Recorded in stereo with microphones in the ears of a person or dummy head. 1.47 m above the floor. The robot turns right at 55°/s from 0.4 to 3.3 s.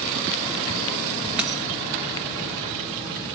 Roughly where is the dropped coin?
Centre.